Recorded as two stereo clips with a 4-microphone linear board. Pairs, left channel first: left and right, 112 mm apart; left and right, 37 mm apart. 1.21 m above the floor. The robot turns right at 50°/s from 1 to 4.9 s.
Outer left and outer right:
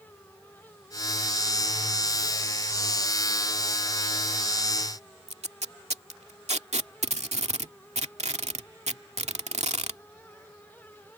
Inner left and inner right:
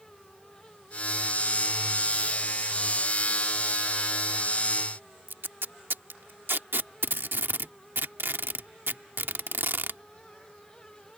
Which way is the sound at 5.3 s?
80° right.